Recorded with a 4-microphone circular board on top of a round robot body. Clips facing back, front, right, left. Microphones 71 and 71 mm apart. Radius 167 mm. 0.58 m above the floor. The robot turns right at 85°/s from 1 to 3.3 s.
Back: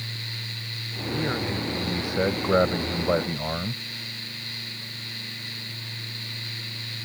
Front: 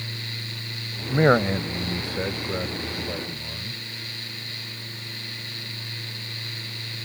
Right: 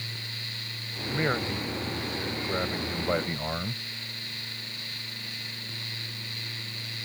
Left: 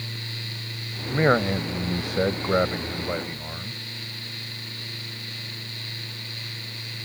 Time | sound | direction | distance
1.1 | a man speaking | 20° left | ?